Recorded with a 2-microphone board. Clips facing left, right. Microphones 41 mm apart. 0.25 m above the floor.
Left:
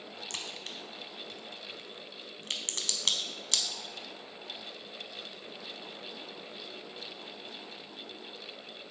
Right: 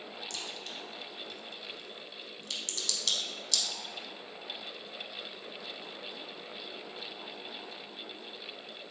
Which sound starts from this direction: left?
A crack, at 0.3 s.